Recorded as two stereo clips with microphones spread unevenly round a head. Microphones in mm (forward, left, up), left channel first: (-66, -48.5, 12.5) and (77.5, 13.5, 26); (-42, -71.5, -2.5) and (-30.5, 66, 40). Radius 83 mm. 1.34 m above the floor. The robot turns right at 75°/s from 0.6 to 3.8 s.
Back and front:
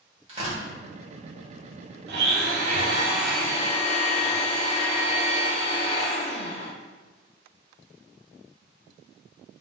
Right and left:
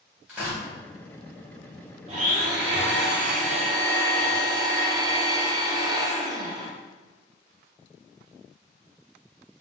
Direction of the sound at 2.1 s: 25° left.